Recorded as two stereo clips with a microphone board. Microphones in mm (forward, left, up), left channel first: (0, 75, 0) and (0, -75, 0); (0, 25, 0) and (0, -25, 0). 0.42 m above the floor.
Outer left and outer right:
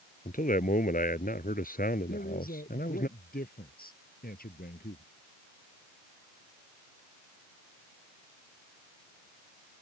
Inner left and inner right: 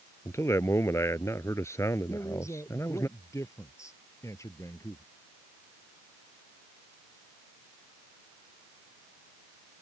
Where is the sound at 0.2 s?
65° left (ahead or behind); by 3.1 s 75° left (ahead or behind).